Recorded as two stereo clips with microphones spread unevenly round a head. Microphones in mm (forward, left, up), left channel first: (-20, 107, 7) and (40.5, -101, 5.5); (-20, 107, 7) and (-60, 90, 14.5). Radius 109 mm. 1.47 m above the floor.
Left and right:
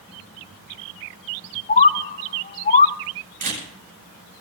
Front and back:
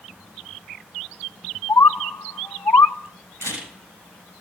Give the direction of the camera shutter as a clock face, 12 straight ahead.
4 o'clock.